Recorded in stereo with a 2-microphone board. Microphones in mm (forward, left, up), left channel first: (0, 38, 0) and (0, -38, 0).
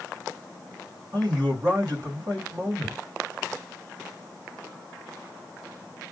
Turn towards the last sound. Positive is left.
turn(degrees=-65)  # may be behind; listen again after turning